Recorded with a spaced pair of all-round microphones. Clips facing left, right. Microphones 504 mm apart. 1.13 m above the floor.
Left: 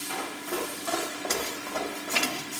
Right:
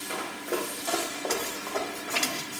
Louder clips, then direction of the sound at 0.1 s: Right 2 dB; 15° left (ahead or behind).